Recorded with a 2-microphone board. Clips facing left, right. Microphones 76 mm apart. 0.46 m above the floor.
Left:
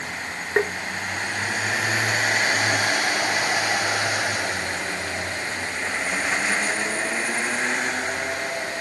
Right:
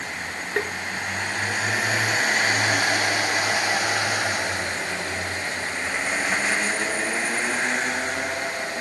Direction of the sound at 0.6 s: 25° left (ahead or behind).